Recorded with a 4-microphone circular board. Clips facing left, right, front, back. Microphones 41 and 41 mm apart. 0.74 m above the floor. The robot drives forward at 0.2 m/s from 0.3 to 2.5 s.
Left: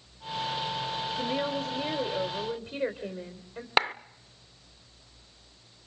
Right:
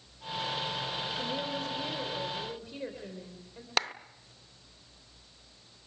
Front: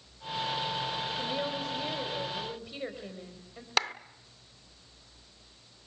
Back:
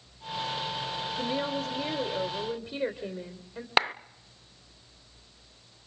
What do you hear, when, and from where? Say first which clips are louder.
1.2 s a woman speaking: left 7 dB, back 3 dB; 155° left, 1.9 m
3.8 s a clap: left 6 dB, back 5 dB; 135° left, 0.5 m